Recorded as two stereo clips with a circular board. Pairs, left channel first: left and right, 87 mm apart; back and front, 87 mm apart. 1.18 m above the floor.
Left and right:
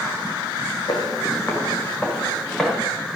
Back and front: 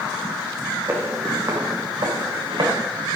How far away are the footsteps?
About 2.5 m.